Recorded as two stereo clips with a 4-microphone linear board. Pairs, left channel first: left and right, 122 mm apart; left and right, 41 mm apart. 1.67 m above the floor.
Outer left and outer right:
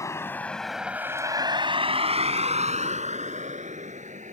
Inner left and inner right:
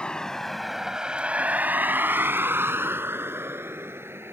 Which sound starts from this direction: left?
A vehicle, at 0.0 s.